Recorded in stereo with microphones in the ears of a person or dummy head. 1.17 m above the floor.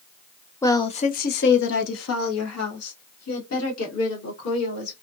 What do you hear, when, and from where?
0.6 s a woman speaking: 10° left (ahead or behind), 0.5 m; by 4.9 s 80° left, 2 m